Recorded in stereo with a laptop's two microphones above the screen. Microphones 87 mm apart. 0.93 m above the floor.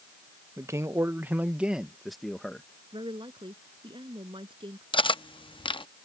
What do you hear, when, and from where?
0.6 s a man speaking: 35° right (ahead or behind); by 2.7 s 10° left (ahead or behind)
2.9 s a woman speaking: 70° right (ahead or behind)
4.9 s cutlery clinking: 70° left (ahead or behind)